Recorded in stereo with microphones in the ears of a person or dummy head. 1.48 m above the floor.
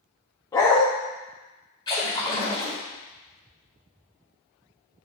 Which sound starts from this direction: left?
A splash, at 1.9 s.